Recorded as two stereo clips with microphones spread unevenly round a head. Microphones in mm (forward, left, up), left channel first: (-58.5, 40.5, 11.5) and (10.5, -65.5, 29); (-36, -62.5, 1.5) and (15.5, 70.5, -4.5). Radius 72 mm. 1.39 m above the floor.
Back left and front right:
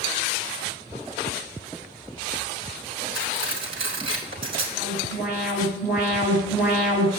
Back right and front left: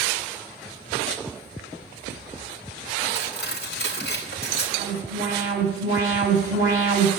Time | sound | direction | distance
3.1 | cutlery clinking | 100° right | 4.5 m
4.8 | an alarm | 135° right | 7 m